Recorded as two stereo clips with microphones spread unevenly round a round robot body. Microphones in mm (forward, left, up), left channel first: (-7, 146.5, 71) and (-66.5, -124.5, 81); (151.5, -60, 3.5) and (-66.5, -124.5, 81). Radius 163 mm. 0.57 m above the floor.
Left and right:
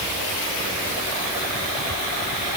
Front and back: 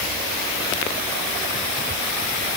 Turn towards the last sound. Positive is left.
No sound to turn to.